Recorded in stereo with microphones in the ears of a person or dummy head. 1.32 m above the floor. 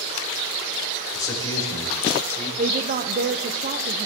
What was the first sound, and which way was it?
A man speaking, 20° left (ahead or behind).